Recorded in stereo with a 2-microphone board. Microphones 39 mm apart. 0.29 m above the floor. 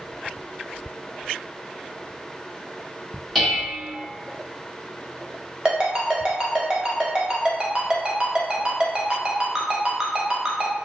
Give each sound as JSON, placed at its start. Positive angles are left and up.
{"t": 3.4, "sound": "dishes clattering", "side_deg": 0, "distance_m": 1.1}
{"t": 5.7, "sound": "a ringtone", "side_deg": -20, "distance_m": 0.7}